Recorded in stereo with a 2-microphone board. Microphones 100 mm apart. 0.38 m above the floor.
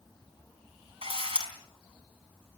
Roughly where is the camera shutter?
Right.